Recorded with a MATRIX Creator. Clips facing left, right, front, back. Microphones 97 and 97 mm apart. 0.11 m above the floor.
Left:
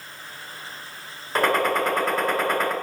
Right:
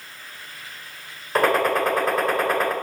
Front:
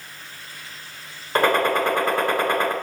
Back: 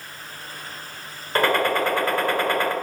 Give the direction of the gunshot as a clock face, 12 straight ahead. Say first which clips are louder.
Right 2 dB, front 1 dB; 12 o'clock.